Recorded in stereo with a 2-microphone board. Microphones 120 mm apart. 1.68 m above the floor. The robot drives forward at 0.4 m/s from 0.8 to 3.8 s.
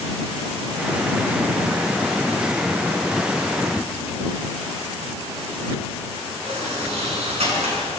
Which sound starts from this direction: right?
A sliding door, at 6.5 s.